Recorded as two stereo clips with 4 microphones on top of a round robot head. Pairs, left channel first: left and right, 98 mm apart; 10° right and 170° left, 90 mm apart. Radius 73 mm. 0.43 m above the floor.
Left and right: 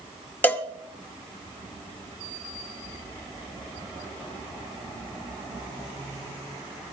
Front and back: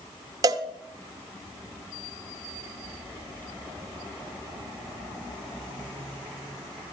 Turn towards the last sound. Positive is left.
turn(degrees=155)